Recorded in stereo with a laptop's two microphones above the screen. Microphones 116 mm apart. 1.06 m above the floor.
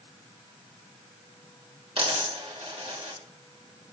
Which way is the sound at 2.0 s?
55° right (ahead or behind).